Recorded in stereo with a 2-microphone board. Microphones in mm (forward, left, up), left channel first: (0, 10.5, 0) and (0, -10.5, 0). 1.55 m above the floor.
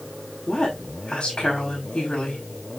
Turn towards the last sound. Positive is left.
turn(degrees=60)  # may be behind; listen again after turning